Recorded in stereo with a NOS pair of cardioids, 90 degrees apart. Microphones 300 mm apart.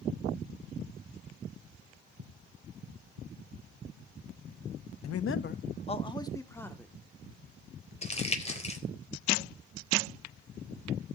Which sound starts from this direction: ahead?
Crumpling, at 8.0 s.